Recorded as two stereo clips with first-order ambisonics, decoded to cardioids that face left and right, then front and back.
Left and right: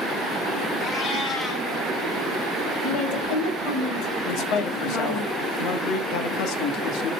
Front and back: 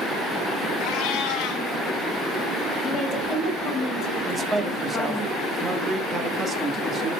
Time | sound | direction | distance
0.8 | a cat meowing | 30° left | 2.5 m
2.8 | a woman speaking | 60° left | 3 m
4.2 | a man speaking | 110° left | 1.2 m